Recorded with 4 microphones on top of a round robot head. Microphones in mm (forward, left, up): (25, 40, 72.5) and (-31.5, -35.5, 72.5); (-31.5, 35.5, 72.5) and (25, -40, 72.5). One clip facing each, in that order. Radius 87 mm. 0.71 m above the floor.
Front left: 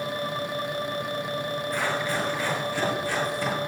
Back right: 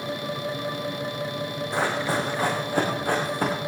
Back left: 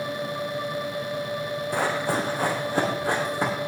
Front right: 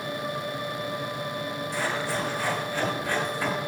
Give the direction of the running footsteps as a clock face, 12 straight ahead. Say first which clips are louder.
Back right 4 dB, back left 4 dB; 6 o'clock.